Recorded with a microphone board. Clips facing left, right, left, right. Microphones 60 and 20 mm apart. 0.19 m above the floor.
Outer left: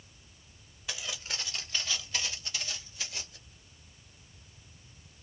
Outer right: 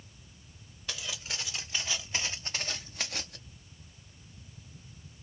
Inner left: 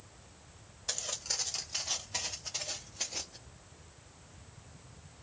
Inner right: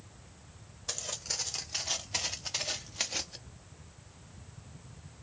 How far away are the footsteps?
About 1.5 m.